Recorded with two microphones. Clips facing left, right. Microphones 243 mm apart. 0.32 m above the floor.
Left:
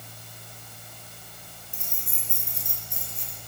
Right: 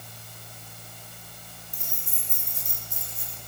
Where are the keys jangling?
75° left (ahead or behind), 4 m.